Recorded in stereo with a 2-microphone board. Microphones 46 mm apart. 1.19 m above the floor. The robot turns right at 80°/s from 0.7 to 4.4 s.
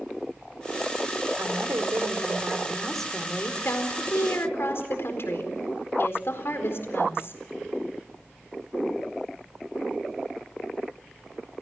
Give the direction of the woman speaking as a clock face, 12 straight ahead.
4 o'clock.